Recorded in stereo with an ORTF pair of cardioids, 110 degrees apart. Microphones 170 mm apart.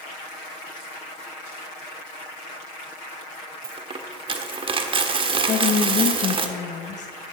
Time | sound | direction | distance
3.6 | a dropped coin | 35° right | 1.4 m
5.5 | a woman speaking | 50° left | 1.0 m